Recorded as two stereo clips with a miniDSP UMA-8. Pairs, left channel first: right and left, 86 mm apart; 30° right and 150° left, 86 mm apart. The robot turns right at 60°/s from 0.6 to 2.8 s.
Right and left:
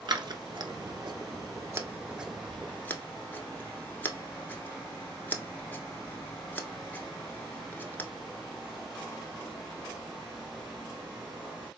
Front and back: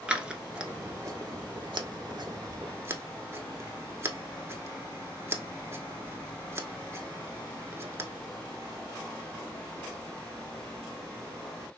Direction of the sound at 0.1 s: 70° left.